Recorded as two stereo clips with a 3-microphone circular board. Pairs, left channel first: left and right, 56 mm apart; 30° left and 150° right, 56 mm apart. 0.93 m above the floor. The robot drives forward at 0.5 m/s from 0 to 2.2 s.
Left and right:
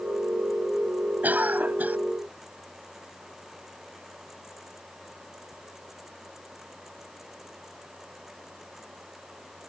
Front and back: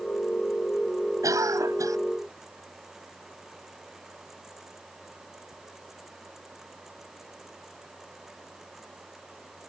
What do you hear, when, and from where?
1.2 s a cough: 150° right